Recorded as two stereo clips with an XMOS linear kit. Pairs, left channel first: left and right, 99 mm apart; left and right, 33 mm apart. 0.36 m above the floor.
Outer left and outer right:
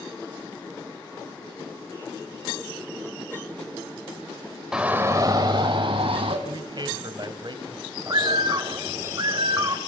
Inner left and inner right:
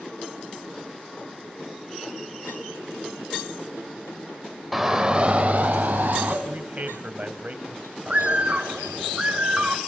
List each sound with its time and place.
4.7 s a shout: 5° right (ahead or behind), 1.3 m; by 6.3 s 70° right (ahead or behind), 2.5 m
6.5 s a man speaking: 50° right (ahead or behind), 2.5 m
8.1 s a bird: 40° right (ahead or behind), 1.6 m